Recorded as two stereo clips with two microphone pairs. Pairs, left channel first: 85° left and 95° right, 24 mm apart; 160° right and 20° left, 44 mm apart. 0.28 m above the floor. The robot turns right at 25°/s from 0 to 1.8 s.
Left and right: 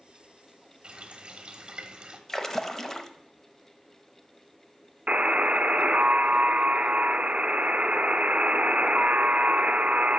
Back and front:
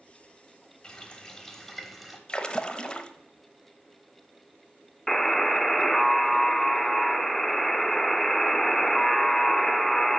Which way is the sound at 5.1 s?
80° right.